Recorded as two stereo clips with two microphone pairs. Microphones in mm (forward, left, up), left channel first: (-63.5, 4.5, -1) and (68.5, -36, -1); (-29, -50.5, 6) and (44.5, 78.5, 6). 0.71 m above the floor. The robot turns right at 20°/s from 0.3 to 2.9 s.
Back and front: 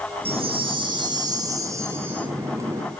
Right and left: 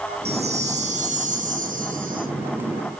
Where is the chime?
20° left, 0.9 m; by 2.3 s 60° left, 0.9 m.